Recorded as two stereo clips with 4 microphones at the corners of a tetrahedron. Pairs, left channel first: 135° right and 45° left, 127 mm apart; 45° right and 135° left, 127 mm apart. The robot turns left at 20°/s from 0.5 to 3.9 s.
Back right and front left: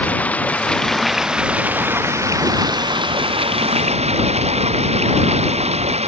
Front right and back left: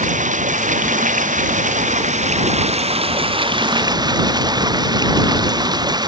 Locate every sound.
0.0 s running water: 145° left; by 6.1 s 80° left